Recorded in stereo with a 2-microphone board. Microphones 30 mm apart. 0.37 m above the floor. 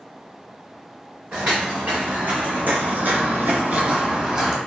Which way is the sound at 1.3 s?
45° right (ahead or behind).